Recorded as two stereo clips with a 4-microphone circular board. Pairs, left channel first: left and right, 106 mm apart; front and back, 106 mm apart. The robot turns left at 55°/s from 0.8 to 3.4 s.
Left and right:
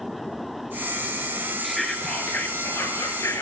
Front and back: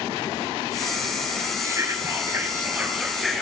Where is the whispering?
175° right, 1.3 m; by 3.4 s 90° left, 1.3 m.